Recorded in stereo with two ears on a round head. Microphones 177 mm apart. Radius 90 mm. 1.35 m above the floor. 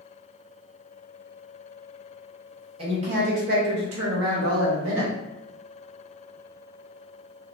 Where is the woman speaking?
25° right (ahead or behind), 1.0 m; by 5.1 s 65° right (ahead or behind), 0.9 m.